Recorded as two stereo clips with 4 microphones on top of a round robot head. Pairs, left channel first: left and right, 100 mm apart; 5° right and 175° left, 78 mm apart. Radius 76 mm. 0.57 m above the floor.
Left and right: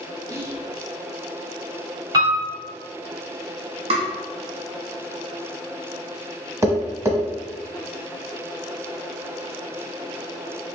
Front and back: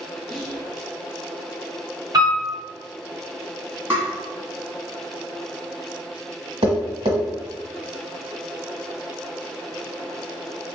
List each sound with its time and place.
0.3 s whispering: 85° right, 0.6 m
2.1 s a piano: 135° right, 1.4 m
3.9 s tapping: 115° right, 1.1 m
6.6 s tapping: 150° right, 1.1 m